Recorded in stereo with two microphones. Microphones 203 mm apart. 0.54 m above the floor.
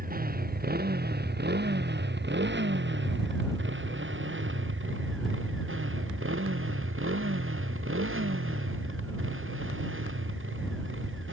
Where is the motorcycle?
45° right (ahead or behind); by 11.3 s 75° right (ahead or behind).